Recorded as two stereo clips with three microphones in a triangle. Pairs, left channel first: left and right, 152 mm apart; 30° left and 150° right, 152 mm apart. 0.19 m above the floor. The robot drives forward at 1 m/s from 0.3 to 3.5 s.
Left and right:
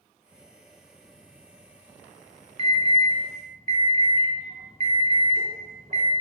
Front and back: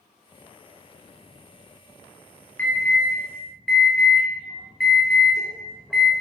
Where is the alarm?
50° right, 5 m; by 6.1 s 60° right, 4.5 m.